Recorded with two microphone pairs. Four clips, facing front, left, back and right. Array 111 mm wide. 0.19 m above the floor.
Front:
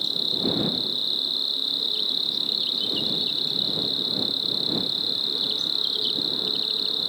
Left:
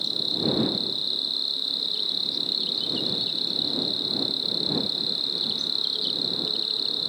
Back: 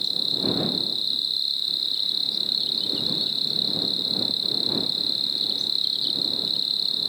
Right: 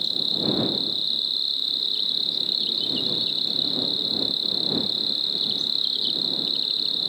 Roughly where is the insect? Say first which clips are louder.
Even, front 1 dB; ahead.